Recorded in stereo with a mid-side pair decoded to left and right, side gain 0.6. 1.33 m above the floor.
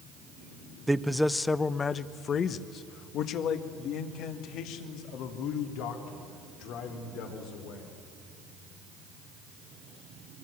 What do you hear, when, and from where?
0.9 s a man speaking: 10° right, 0.8 m; by 8.0 s 75° left, 4 m